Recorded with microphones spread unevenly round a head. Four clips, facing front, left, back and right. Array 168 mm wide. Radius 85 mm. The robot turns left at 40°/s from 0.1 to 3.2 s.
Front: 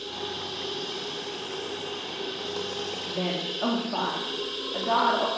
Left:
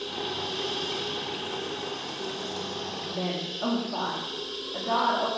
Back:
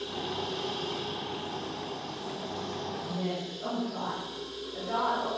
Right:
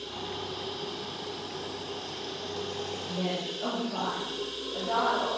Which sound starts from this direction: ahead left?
A woman speaking, at 3.1 s.